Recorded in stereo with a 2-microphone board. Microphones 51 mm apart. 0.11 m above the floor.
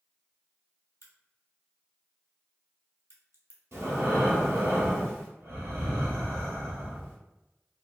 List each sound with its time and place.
1.0 s a crack: 55° right (ahead or behind), 0.8 m
3.7 s breathing: 60° right (ahead or behind), 1.2 m